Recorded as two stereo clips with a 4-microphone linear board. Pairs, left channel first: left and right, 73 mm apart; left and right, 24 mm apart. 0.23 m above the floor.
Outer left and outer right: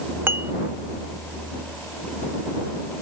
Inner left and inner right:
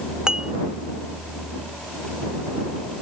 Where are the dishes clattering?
30° right (ahead or behind).